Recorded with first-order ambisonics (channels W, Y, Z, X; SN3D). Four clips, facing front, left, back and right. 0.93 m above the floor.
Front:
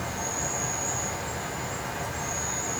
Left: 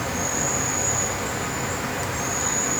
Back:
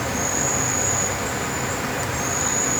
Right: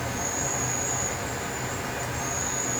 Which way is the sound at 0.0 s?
155° left.